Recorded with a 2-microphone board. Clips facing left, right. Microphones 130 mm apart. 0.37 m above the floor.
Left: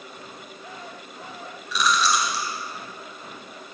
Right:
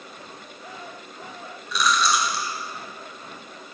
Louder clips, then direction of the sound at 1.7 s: Even; centre (ahead or behind).